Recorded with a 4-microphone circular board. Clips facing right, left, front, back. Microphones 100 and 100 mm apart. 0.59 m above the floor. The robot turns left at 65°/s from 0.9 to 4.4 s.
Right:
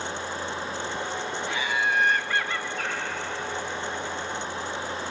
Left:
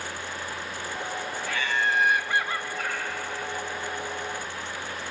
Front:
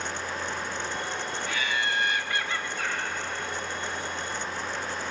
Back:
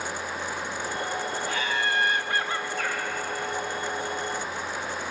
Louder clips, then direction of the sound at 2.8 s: Even, back 2 dB; 55° right.